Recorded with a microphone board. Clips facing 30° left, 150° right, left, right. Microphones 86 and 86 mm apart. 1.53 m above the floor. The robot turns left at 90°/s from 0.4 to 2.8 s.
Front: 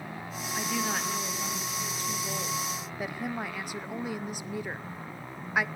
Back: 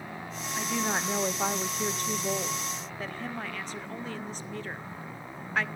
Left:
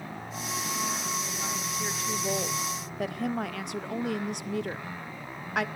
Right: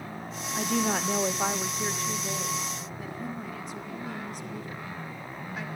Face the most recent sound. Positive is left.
turn(degrees=110)